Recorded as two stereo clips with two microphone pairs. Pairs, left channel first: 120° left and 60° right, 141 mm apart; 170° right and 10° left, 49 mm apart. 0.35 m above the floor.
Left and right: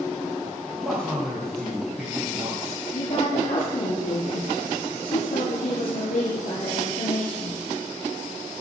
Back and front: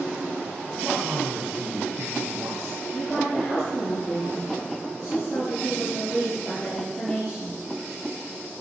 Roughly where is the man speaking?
Ahead left.